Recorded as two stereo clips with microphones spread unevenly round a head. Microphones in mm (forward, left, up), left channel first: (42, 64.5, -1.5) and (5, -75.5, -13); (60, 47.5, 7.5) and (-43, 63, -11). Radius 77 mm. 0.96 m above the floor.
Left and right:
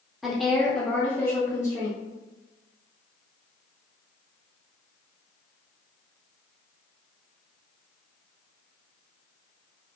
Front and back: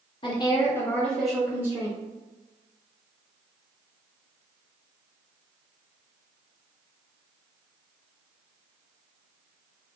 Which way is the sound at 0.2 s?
25° right.